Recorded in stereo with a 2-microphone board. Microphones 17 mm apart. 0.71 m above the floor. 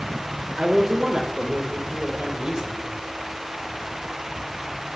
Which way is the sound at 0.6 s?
60° right (ahead or behind).